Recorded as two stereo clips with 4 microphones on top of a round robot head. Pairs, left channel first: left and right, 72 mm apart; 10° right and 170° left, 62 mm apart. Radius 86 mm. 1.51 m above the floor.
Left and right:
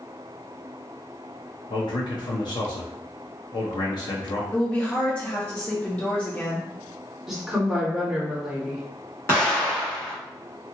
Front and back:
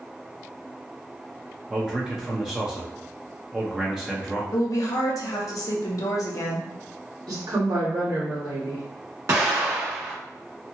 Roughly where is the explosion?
Behind left.